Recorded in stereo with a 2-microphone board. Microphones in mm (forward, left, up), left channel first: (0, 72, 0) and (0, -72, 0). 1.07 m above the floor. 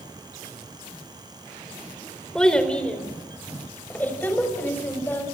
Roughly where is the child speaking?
Centre.